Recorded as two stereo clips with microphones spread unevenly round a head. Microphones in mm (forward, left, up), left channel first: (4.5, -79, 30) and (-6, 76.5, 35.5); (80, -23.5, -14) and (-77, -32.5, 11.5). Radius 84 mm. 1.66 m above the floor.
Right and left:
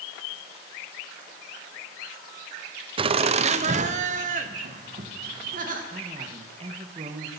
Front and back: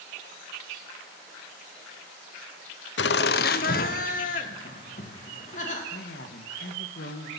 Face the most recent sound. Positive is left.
turn(degrees=40)